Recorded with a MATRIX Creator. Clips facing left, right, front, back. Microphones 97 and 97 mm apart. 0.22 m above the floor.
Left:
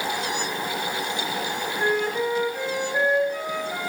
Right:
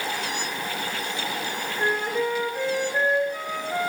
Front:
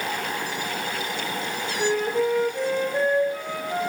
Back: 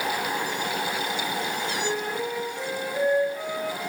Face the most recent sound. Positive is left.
turn(degrees=0)